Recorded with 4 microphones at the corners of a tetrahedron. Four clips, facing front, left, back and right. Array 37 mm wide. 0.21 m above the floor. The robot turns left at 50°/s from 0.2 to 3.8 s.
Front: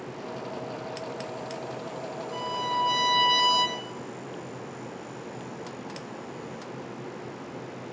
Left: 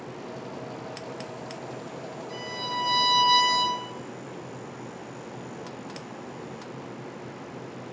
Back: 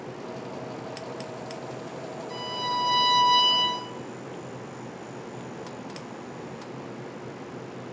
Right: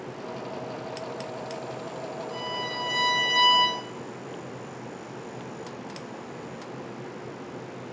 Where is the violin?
155° left, 4.5 m; by 3.8 s 80° left, 4.5 m.